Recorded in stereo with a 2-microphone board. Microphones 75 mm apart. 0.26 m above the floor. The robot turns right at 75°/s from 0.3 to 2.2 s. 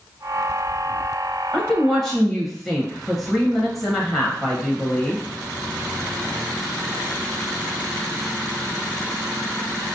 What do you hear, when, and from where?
1.5 s a woman speaking: 15° left (ahead or behind), 0.9 m; by 5.2 s centre (ahead or behind), 0.9 m